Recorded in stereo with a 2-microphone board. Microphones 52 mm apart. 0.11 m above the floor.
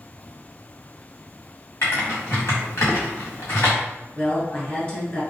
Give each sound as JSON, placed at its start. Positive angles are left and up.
{"t": 1.8, "sound": "typing on a keyboard", "side_deg": 65, "distance_m": 1.8}
{"t": 4.2, "sound": "a woman speaking", "side_deg": 25, "distance_m": 1.7}